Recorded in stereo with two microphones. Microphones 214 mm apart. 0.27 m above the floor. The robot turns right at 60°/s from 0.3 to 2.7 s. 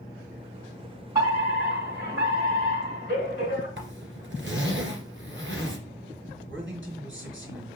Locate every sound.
1.1 s a fire alarm: 155° right, 4 m; by 3.7 s 65° right, 4 m
3.8 s a zipper: 65° right (ahead or behind), 1.8 m
6.5 s a man speaking: 65° right (ahead or behind), 3 m